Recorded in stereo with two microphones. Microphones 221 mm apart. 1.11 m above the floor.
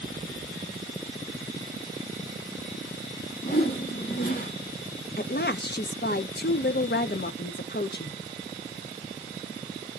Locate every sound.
3.4 s a whoosh: 50° left (ahead or behind), 2.5 m
5.2 s a woman speaking: 50° left (ahead or behind), 0.6 m